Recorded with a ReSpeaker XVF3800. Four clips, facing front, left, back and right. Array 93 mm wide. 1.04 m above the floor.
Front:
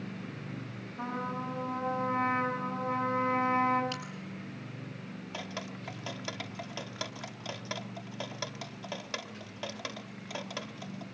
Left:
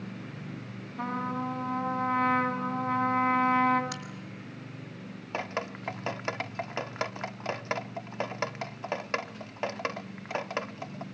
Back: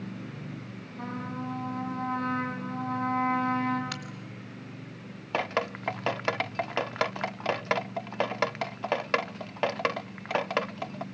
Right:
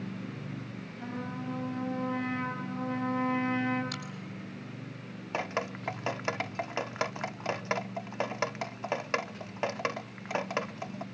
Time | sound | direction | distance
1.0 | a trumpet | 75° left | 6.5 m
3.9 | a crack | 165° left | 6.5 m
5.3 | dripping | 175° right | 0.7 m